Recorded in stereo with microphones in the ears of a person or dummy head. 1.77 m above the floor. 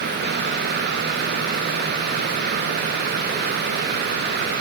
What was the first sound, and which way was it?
Only background noise.